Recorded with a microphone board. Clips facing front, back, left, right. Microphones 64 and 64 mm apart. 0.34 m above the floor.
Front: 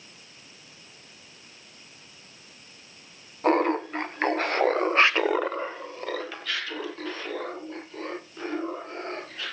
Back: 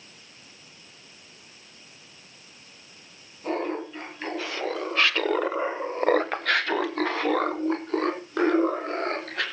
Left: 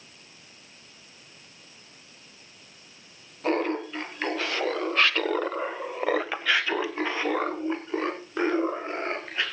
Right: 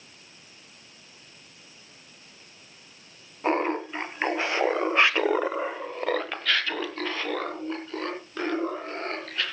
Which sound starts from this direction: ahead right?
Laughter, at 3.4 s.